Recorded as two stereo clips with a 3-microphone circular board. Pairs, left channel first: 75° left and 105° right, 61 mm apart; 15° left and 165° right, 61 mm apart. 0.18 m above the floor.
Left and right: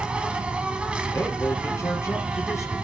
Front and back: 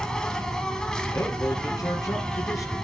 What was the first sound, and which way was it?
An insect, 55° right.